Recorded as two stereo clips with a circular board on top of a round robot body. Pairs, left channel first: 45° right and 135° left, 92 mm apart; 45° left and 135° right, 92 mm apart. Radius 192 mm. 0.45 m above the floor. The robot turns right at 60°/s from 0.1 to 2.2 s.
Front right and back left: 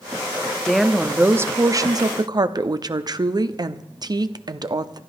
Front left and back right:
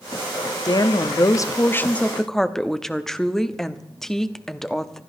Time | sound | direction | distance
0.7 | a woman speaking | 35° left | 1.2 m